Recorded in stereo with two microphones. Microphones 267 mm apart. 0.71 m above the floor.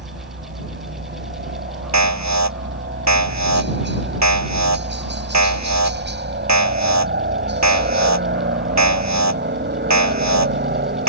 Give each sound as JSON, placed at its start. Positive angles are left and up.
{"t": 0.0, "sound": "a helicopter", "side_deg": -40}
{"t": 1.9, "sound": "an alarm", "side_deg": -80}